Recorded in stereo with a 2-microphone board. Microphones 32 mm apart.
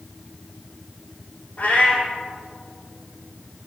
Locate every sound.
1.6 s a cat meowing: 45° left (ahead or behind), 4.5 m